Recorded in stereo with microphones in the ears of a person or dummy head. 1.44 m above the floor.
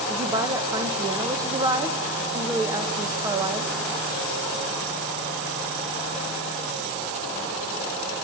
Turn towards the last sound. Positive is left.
turn(degrees=-20)  # may be behind; listen again after turning